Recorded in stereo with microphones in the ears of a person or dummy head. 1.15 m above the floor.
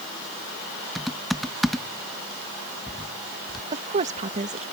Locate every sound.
0.9 s typing on a keyboard: 5° right (ahead or behind)
3.7 s a woman speaking: 35° right (ahead or behind)